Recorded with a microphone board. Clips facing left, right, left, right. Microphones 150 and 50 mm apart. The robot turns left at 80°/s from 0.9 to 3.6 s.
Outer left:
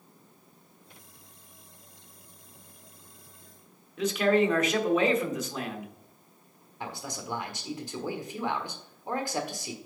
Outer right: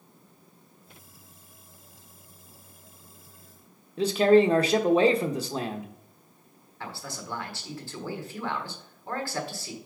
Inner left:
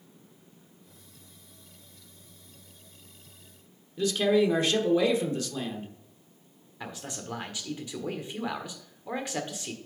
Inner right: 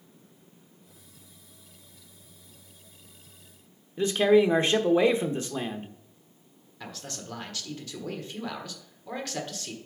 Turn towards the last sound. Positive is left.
turn(degrees=20)  # may be behind; listen again after turning